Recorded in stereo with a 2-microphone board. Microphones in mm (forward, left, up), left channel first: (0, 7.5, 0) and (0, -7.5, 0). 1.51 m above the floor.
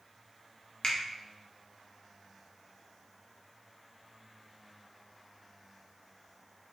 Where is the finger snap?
80° left, 0.6 m.